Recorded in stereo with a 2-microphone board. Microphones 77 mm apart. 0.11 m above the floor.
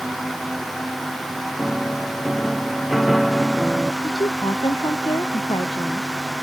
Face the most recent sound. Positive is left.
turn(degrees=80)